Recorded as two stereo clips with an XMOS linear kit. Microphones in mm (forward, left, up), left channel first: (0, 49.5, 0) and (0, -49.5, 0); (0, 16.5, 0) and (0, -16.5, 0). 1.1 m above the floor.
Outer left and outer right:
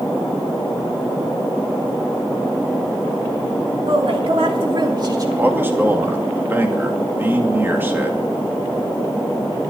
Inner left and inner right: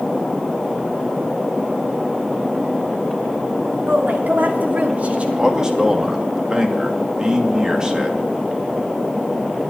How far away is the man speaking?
About 2.5 m.